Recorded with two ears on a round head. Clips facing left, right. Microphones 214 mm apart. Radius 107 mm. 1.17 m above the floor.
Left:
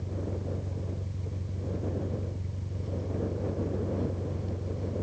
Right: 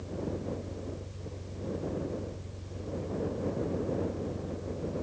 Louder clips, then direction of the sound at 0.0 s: Right 1 dB; 55° left (ahead or behind).